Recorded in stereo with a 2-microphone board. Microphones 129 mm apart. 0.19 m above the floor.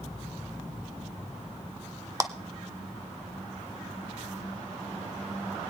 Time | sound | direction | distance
2.2 | a clap | 25° right (ahead or behind) | 1.0 m